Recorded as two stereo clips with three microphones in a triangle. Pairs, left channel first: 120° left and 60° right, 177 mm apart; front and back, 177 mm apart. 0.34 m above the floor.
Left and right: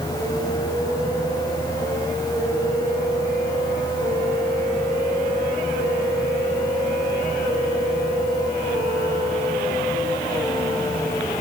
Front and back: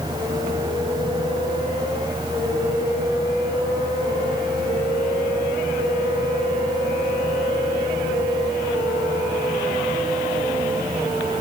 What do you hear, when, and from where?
Only background noise.